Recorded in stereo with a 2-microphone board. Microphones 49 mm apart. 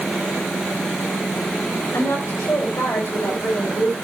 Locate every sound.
1.9 s a woman speaking: 85° left, 7.5 m; by 4.0 s 90° left, 6.5 m